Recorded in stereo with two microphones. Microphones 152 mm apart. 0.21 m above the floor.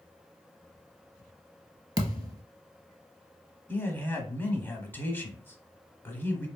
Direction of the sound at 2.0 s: 25° right (ahead or behind).